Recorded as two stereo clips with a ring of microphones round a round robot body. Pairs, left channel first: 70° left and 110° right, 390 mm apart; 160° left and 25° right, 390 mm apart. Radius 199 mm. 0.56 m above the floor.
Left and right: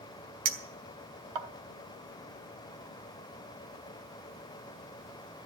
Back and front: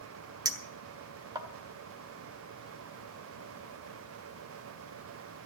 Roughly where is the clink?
Right.